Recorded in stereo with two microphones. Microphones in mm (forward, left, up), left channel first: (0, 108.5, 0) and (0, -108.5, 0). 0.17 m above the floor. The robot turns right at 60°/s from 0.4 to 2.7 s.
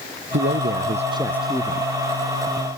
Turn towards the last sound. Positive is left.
turn(degrees=75)